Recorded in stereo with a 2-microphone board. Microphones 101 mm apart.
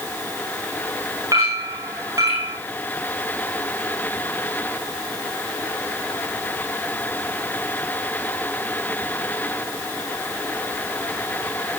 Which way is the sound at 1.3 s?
35° right (ahead or behind).